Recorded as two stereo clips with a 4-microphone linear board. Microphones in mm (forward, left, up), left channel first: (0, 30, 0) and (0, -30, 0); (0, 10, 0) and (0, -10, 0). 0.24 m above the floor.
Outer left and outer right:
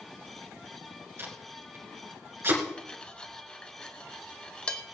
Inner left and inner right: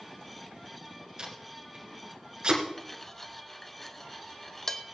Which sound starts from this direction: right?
Tape being pulled, at 1.2 s.